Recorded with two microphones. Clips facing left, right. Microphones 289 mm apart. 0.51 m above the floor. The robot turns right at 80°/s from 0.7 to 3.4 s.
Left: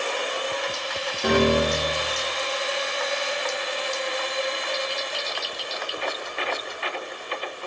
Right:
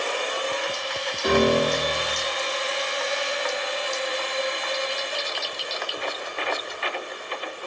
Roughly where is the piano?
Left.